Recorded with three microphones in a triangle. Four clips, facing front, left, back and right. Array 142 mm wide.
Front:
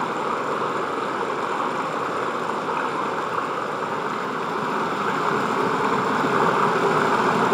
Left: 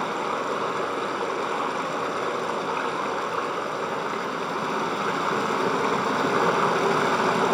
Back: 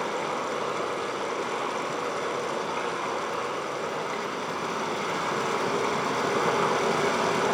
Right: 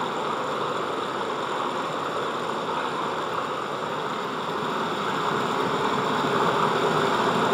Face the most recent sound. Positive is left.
turn(degrees=5)